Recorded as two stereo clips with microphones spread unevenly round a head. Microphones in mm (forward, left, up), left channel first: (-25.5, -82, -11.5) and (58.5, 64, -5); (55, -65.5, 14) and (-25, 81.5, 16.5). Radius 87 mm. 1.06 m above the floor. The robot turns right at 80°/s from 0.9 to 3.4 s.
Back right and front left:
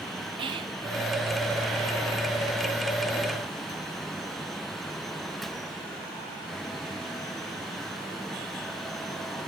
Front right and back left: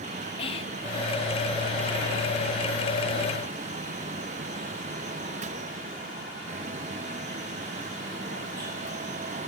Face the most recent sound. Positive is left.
turn(degrees=-165)